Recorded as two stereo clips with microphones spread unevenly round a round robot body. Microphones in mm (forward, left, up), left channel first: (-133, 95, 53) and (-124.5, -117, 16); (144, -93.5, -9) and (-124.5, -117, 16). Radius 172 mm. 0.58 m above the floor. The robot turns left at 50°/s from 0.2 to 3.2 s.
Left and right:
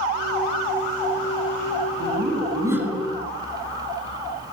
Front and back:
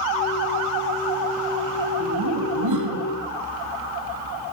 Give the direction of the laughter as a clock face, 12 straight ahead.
4 o'clock.